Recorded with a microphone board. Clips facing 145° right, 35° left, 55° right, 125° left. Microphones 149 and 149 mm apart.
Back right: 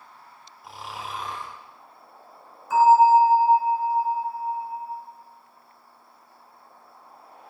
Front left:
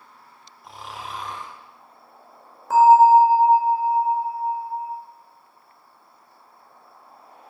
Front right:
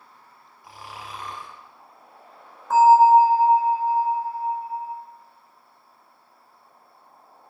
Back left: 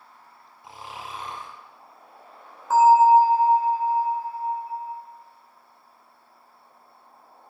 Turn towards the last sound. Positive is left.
turn(degrees=40)